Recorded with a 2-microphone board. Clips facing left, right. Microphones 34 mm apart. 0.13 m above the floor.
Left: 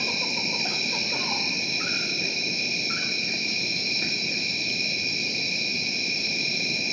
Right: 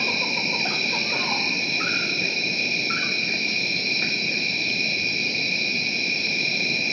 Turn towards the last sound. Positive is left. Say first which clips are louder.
# right 4 dB
turn(degrees=-20)  # may be behind; listen again after turning